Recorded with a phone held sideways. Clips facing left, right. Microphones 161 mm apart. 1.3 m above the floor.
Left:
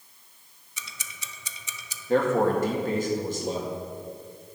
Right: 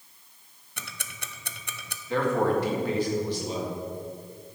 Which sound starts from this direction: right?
Ticking, at 0.8 s.